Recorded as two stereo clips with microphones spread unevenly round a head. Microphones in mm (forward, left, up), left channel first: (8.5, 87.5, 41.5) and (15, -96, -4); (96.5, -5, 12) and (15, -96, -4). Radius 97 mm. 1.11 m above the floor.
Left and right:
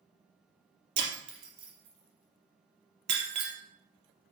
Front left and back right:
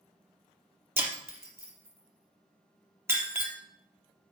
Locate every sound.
1.0 s breaking glass: 60° right, 3.5 m